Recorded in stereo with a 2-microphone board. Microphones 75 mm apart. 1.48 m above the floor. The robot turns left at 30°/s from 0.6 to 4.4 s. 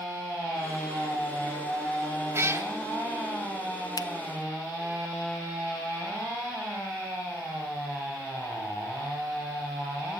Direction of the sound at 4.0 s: 55° left (ahead or behind).